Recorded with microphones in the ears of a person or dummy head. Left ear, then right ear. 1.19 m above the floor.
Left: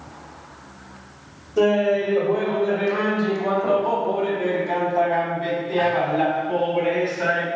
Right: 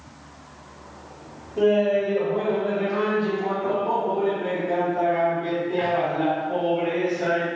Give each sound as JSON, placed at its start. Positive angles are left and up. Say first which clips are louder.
{"t": 1.6, "sound": "laughter", "louder": "left 1 dB", "side_deg": 55, "distance_m": 2.0}